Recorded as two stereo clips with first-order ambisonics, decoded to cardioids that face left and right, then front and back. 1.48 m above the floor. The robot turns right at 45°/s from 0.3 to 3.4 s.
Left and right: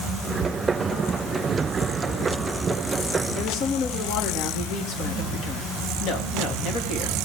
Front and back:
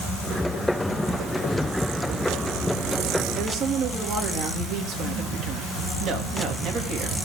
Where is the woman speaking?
125° left, 3 m; by 7.2 s 130° left, 3 m.